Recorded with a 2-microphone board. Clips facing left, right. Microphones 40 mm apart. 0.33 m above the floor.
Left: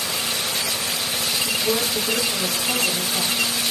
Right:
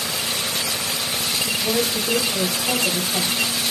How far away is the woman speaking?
About 1.8 m.